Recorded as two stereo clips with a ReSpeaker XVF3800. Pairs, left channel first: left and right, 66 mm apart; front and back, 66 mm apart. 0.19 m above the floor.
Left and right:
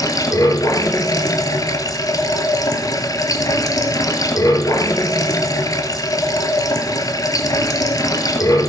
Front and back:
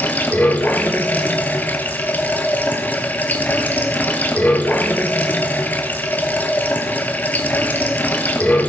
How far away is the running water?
About 1.1 m.